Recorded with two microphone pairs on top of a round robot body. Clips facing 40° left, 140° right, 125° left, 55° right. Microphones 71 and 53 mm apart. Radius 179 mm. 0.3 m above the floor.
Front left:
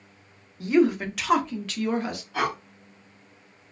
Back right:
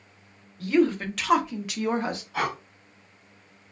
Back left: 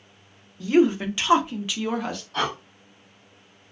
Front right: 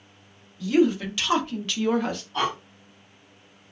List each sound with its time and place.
0.6 s a woman speaking: 85° left, 1.0 m; by 2.2 s 125° right, 0.9 m
2.3 s breathing: 130° left, 1.4 m